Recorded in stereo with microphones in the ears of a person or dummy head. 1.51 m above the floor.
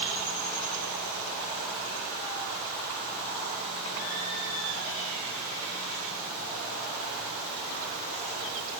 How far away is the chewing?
No chewing in this recording.